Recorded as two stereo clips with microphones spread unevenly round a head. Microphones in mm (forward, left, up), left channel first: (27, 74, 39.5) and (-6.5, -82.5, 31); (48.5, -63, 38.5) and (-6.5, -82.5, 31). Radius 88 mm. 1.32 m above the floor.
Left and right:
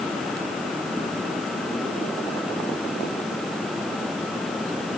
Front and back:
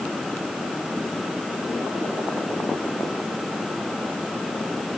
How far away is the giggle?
I don't hear a giggle.